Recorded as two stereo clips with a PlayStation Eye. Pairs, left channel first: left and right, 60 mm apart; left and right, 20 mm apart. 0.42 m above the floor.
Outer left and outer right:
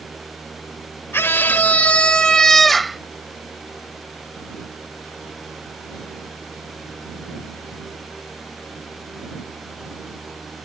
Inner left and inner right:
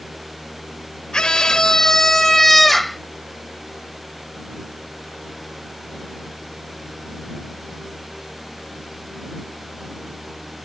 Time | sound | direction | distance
1.1 | a scream | 45° left (ahead or behind) | ?